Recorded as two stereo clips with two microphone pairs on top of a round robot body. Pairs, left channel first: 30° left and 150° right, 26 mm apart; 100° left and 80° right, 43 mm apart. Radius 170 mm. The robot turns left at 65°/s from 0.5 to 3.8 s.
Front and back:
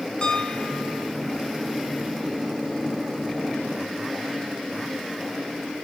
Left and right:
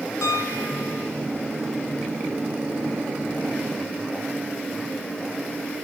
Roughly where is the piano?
Left.